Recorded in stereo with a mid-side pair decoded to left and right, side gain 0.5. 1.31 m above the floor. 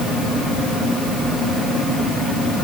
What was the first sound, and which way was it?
Only background noise.